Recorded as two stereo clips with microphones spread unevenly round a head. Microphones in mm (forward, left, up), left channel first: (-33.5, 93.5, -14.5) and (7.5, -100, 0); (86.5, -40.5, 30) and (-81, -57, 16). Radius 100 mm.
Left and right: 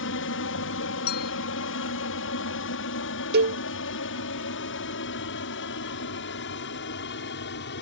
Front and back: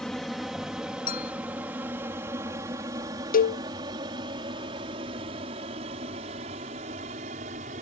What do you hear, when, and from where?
0.0 s an aircraft: 95° left; by 7.8 s 135° left
1.1 s a clink: 55° left
3.3 s a cowbell: 35° right